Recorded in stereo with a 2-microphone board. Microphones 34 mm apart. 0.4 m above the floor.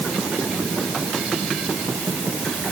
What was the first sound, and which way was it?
Only background noise.